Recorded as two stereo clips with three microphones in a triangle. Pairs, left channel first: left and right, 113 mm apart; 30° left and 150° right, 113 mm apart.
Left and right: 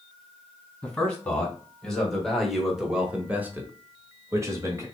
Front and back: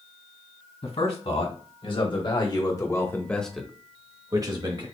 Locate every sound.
0.8 s a man speaking: 10° left, 2 m; by 4.9 s 140° right, 1.2 m